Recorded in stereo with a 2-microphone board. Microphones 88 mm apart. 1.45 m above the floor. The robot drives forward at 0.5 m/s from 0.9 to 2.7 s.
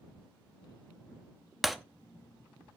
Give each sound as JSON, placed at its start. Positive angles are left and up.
{"t": 1.6, "sound": "breaking glass", "side_deg": 0, "distance_m": 0.9}